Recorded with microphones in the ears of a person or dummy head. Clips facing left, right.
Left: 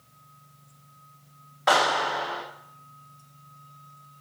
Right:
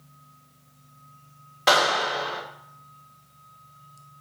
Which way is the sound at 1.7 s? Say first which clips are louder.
Right 1 dB; 40° right (ahead or behind).